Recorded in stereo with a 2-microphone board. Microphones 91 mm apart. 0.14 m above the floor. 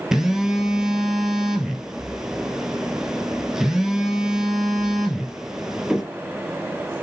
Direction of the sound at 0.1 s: 5° right (ahead or behind).